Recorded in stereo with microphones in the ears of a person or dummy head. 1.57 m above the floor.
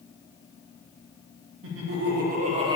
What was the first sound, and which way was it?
Laughter, 75° right (ahead or behind).